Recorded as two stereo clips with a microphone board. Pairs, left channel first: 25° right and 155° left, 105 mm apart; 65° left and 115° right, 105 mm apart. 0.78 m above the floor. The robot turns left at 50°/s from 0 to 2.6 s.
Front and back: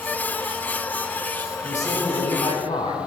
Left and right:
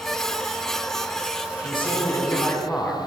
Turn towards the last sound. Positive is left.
turn(degrees=-10)